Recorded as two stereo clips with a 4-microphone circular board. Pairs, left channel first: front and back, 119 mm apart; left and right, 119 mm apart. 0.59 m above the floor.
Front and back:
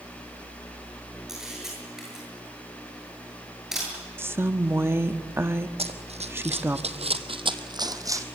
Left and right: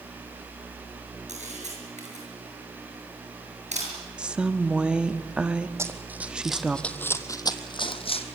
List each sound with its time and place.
1.3 s a camera shutter: 95° right, 8 m
4.2 s a woman speaking: 155° right, 0.7 m
5.8 s running footsteps: 155° right, 1.6 m; by 8.3 s 115° left, 1.6 m